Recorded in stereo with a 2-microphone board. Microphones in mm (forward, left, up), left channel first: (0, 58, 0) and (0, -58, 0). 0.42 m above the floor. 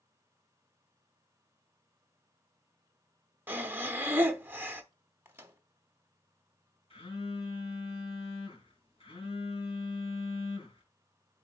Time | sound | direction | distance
3.5 | breathing | 15° right (ahead or behind) | 0.8 m
5.2 | a microwave | 20° right (ahead or behind) | 1.2 m
6.9 | a phone buzzing | 60° left (ahead or behind) | 3.5 m